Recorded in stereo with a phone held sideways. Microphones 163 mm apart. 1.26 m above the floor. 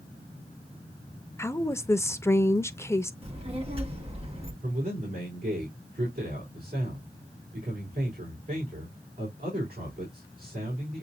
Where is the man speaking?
65° right (ahead or behind), 3.5 m.